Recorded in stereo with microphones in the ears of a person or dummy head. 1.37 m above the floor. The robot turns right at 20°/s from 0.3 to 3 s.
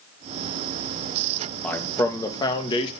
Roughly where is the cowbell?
No cowbell in this recording.